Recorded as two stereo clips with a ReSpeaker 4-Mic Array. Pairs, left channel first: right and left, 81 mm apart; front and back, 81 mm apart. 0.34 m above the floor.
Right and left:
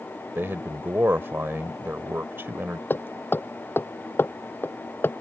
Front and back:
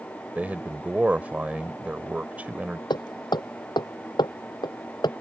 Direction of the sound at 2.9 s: 25° right.